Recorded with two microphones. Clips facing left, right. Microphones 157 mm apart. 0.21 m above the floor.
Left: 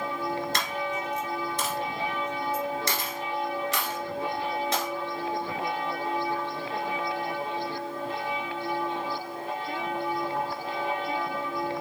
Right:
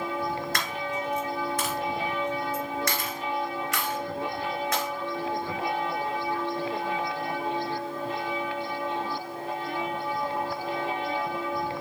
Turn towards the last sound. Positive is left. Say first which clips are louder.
# left 1 dB
turn(degrees=25)  # may be behind; listen again after turning